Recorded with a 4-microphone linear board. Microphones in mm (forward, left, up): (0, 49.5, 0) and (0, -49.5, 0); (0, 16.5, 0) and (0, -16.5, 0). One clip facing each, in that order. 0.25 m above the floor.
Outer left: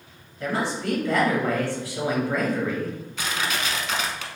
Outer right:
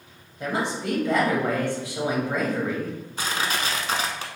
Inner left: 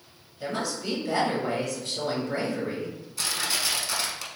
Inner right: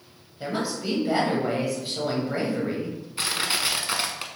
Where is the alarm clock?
I don't hear an alarm clock.